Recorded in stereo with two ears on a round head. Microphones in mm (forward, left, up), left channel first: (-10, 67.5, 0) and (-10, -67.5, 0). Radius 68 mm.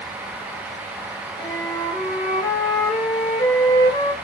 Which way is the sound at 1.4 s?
20° left (ahead or behind).